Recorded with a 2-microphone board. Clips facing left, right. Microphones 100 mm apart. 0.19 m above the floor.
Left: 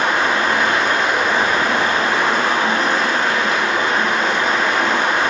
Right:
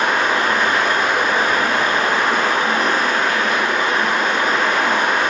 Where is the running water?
30° left (ahead or behind), 1.0 m.